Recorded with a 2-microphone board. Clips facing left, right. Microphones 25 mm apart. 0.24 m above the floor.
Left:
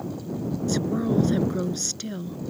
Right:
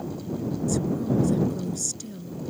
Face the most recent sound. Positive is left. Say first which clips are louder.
# left 2 dB
turn(degrees=40)  # may be behind; listen again after turning